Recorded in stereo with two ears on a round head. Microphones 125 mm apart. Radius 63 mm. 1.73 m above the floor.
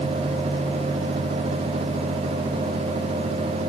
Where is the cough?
I don't hear a cough.